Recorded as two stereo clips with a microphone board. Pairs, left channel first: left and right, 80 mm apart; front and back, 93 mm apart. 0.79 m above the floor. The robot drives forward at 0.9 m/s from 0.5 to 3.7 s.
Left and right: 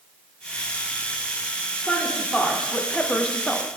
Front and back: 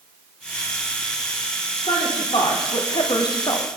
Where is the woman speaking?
5° left, 2 m; by 3.7 s 20° left, 0.6 m.